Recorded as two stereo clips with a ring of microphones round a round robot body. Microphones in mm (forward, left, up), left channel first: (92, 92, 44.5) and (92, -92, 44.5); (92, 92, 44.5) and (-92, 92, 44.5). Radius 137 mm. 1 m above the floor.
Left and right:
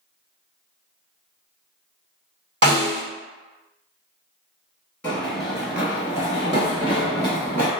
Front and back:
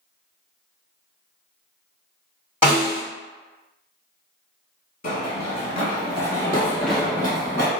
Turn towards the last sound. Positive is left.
turn(degrees=-110)